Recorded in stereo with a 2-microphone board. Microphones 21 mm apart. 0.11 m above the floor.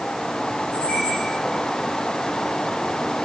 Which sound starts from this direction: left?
A squeak, at 0.7 s.